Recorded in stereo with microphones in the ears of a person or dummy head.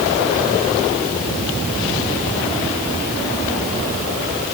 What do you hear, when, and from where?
Only background noise.